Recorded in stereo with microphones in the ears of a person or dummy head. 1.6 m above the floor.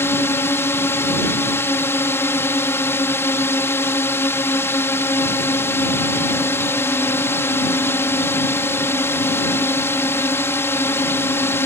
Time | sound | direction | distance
0.0 | a drone | 15° left (ahead or behind) | ?